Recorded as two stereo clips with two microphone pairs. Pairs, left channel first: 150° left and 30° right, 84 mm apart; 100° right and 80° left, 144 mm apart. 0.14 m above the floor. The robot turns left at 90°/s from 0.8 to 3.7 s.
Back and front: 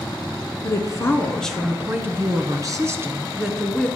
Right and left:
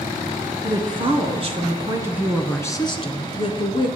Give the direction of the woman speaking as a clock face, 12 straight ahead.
8 o'clock.